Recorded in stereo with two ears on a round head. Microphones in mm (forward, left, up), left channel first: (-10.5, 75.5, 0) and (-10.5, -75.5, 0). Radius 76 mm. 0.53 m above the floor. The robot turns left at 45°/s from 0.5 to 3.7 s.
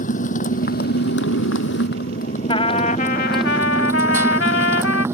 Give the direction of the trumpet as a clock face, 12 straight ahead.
7 o'clock.